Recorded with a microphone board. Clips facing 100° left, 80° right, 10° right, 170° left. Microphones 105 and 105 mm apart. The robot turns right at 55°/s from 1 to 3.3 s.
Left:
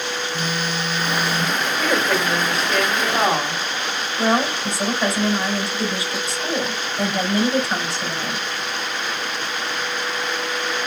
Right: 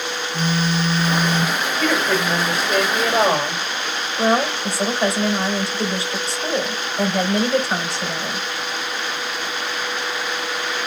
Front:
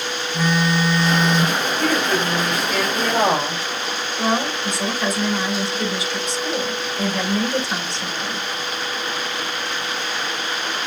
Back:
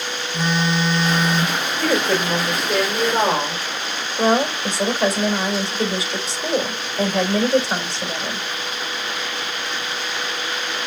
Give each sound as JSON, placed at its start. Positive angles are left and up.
{"t": 0.3, "sound": "a phone buzzing", "azimuth_deg": -125, "distance_m": 1.1}
{"t": 1.8, "sound": "a woman speaking", "azimuth_deg": 175, "distance_m": 3.0}
{"t": 4.2, "sound": "a woman speaking", "azimuth_deg": -135, "distance_m": 2.5}